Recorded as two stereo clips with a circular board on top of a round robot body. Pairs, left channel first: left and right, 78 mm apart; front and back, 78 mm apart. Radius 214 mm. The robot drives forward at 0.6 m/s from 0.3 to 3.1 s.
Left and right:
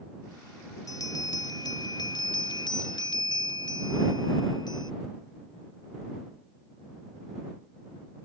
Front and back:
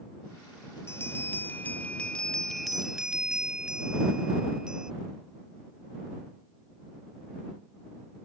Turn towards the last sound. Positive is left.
turn(degrees=100)